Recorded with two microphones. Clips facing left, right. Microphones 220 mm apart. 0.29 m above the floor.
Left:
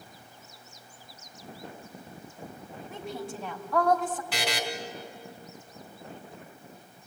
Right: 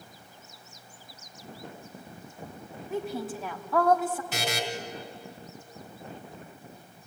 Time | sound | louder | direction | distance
2.9 | a woman speaking | right 6 dB | centre (ahead or behind) | 3 m
4.3 | a buzzer | even | 25° right (ahead or behind) | 3.5 m